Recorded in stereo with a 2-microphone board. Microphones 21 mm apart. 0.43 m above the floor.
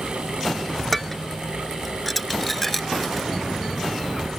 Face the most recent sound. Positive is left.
turn(degrees=15)  # may be behind; listen again after turning